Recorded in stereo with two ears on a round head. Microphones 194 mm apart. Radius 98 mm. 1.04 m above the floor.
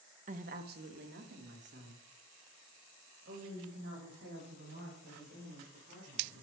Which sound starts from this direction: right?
A woman speaking, at 0.3 s.